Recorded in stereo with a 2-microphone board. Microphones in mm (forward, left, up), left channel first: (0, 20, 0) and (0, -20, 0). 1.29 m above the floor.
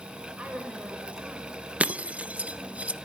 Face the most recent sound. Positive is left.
turn(degrees=-30)  # may be behind; listen again after turning